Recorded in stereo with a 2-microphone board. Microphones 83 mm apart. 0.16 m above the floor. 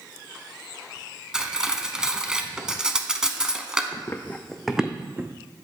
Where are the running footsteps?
40° left (ahead or behind), 0.6 m; by 5.3 s 25° right (ahead or behind), 0.7 m.